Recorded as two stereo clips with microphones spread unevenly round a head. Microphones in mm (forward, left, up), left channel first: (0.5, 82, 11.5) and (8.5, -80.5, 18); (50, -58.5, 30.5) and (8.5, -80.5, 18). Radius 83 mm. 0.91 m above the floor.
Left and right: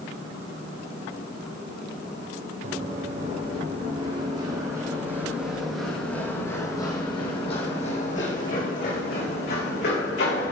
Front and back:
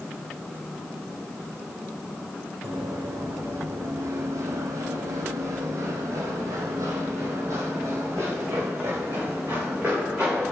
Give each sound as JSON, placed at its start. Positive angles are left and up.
{"t": 2.6, "sound": "running footsteps", "azimuth_deg": -135, "distance_m": 4.0}